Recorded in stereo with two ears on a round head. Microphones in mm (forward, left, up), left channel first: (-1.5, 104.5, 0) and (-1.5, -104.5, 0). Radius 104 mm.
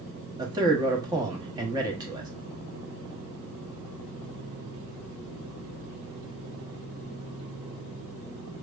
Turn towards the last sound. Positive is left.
turn(degrees=-20)  # may be behind; listen again after turning